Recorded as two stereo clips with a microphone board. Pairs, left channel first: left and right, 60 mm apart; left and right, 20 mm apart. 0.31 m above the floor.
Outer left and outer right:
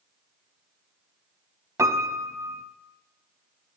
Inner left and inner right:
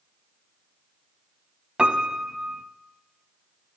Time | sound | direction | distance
1.8 | a piano | 60° right (ahead or behind) | 0.7 m